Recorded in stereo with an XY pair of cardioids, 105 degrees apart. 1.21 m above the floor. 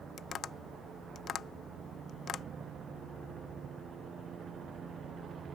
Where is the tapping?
55° left.